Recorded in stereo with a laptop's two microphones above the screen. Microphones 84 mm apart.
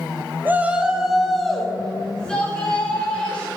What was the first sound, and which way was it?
A shout, 20° right (ahead or behind).